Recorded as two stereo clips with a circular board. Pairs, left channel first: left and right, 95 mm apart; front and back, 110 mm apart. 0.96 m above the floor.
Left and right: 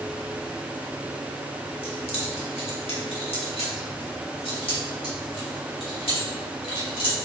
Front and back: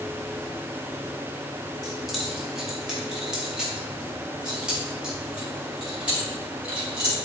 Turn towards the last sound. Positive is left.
turn(degrees=100)